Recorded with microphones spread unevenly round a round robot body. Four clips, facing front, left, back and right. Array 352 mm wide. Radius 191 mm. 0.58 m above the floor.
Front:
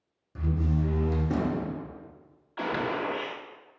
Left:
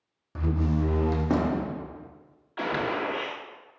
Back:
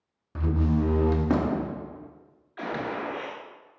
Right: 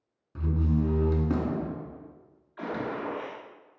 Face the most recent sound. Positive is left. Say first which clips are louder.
# left 4 dB, front 2 dB
turn(degrees=85)